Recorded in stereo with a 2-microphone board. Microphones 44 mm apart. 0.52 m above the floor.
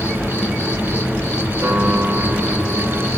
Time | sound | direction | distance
0.0 | an insect | 75° left (ahead or behind) | 3 m
1.6 | a piano | 75° right (ahead or behind) | 4.5 m